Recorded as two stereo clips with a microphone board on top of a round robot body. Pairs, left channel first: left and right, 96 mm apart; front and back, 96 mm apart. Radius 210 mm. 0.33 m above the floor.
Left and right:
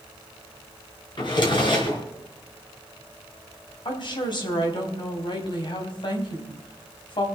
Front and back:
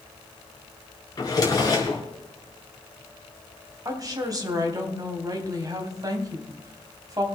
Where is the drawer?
50° left, 3.5 m.